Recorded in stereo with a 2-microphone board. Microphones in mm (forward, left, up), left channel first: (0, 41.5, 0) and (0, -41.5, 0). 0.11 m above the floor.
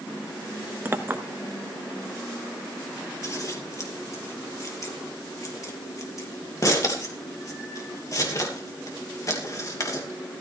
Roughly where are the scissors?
Left.